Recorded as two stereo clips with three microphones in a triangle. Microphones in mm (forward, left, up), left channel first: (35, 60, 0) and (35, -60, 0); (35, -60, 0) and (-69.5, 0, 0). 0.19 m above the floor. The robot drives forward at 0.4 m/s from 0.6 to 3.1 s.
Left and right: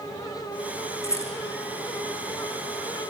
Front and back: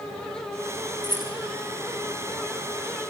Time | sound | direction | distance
1.0 | a rattle | 25° left | 6.5 m